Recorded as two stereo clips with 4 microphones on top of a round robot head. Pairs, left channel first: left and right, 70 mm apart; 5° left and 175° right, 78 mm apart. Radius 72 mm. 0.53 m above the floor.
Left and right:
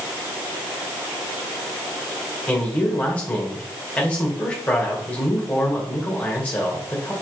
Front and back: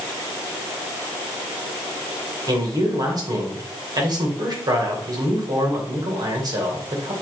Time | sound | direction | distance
2.5 | a man speaking | 160° left | 2.5 m